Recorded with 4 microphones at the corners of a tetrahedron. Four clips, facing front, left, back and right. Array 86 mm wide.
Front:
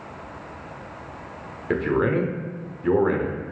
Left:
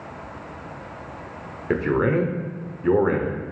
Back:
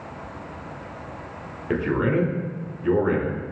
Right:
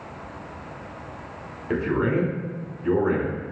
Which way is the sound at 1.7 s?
65° left.